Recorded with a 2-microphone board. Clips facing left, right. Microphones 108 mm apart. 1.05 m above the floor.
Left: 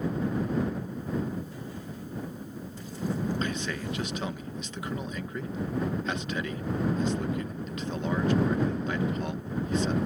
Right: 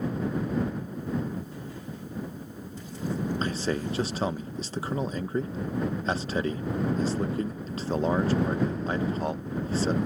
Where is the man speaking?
35° right (ahead or behind).